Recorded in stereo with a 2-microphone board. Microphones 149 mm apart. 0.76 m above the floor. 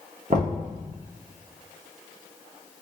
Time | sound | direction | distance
0.3 | knocking | 55° right (ahead or behind) | 1.1 m